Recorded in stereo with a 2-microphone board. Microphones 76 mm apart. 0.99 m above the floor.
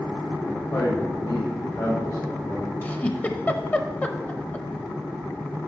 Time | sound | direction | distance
0.5 | a man speaking | 50° left (ahead or behind) | 1.4 m
2.8 | a giggle | 20° left (ahead or behind) | 0.7 m